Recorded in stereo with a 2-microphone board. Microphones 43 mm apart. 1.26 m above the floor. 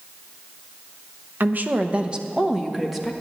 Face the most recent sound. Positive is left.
turn(degrees=-5)  # may be behind; listen again after turning